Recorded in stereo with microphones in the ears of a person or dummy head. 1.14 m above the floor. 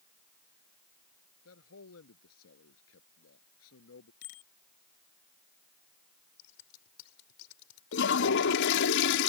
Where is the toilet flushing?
70° left (ahead or behind).